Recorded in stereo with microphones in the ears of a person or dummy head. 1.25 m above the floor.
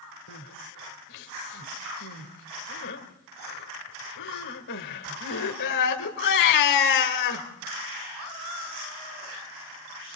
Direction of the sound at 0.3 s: 60° left (ahead or behind).